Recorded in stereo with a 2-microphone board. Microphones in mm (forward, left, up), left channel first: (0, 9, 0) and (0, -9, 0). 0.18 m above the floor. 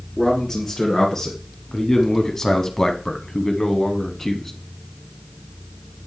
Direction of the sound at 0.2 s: 20° left (ahead or behind).